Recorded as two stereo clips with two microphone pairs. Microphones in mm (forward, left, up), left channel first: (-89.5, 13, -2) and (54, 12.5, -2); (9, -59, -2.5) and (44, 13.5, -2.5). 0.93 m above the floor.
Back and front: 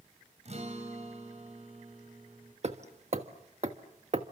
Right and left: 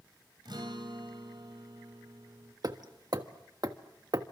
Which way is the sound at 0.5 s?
40° left.